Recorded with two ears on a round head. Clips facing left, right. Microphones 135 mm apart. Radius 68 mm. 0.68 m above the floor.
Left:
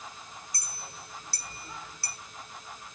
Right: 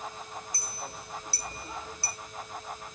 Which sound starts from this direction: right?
A clink, at 0.5 s.